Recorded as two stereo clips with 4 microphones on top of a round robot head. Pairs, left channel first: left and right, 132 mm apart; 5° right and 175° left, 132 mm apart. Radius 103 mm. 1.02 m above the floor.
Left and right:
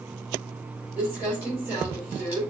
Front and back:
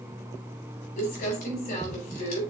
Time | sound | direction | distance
1.0 | crumpling | 15° right | 3.5 m